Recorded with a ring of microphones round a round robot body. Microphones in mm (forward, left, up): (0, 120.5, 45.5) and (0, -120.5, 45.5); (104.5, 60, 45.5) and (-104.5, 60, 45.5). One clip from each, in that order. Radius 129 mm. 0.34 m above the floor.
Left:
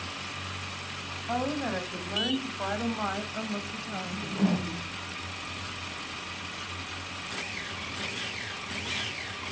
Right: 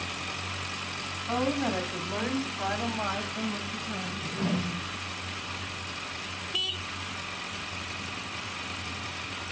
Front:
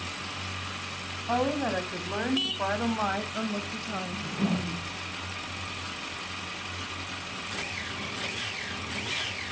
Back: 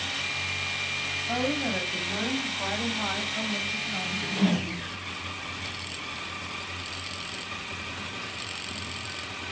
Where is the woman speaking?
5° left, 3 m; by 4.3 s 40° left, 2.5 m.